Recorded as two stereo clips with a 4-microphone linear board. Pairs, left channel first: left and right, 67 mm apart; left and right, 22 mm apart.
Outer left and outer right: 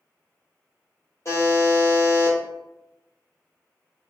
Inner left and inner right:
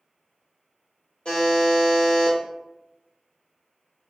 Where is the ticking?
No ticking in this recording.